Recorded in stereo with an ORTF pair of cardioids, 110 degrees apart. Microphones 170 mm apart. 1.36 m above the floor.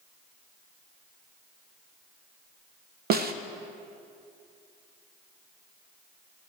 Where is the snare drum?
65° right, 0.8 m.